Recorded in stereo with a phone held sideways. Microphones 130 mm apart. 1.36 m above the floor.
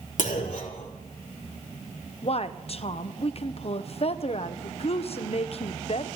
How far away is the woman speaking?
About 0.9 m.